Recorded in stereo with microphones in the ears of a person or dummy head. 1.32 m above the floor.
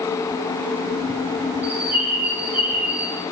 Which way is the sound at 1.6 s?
10° right (ahead or behind).